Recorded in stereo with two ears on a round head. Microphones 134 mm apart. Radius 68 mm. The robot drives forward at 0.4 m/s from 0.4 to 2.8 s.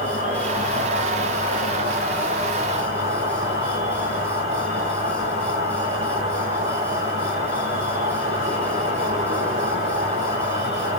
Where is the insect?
50° right (ahead or behind), 1.1 m.